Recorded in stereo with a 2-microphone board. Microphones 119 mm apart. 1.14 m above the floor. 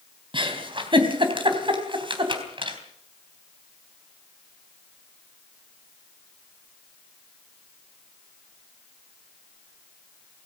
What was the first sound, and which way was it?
A giggle, 45° right (ahead or behind).